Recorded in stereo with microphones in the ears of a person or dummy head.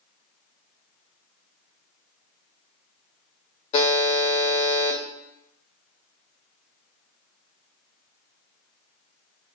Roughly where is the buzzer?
Left.